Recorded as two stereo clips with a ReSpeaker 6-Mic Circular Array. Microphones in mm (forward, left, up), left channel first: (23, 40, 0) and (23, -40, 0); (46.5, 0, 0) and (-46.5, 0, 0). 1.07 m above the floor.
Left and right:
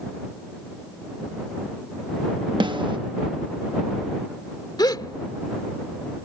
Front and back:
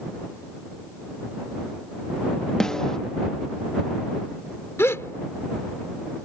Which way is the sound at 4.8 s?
60° left.